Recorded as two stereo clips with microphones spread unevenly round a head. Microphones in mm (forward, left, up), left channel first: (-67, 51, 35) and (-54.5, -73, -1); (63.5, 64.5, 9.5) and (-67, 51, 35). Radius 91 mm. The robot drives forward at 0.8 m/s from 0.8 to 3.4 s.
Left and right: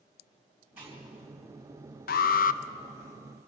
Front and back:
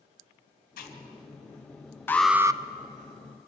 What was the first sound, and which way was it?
Chewing, straight ahead.